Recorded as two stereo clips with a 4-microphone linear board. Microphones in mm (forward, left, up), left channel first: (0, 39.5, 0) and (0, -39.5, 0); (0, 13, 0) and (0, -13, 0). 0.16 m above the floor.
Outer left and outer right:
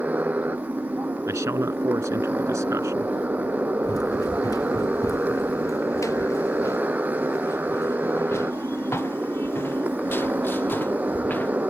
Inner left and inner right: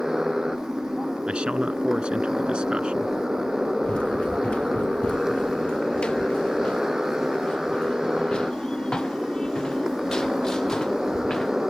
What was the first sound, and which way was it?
A motorcycle, 20° right (ahead or behind).